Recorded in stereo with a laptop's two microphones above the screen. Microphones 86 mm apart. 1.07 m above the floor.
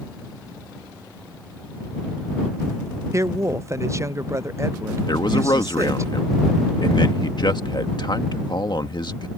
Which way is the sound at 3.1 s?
35° right (ahead or behind).